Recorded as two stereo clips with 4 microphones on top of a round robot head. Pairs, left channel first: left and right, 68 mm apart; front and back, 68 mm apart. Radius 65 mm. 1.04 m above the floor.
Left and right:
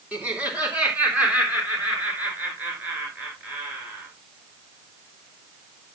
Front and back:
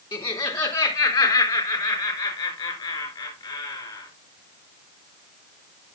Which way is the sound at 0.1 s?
15° right.